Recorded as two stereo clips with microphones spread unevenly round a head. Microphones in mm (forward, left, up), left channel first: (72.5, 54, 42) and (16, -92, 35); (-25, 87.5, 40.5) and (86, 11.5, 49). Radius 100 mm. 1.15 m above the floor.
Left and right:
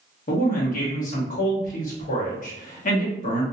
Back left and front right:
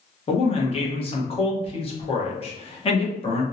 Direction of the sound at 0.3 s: 105° left.